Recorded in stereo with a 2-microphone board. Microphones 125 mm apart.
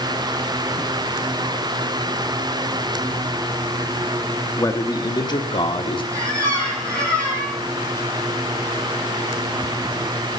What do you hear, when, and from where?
4.6 s a man speaking: 20° left (ahead or behind), 1.1 m; by 6.0 s 40° left (ahead or behind), 1.7 m
6.1 s a squeak: 25° right (ahead or behind), 6 m